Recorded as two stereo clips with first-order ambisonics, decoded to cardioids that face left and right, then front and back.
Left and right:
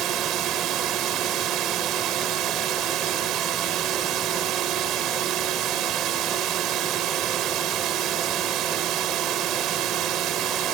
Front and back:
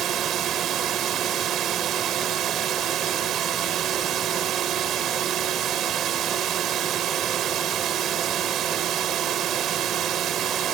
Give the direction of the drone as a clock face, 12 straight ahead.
4 o'clock.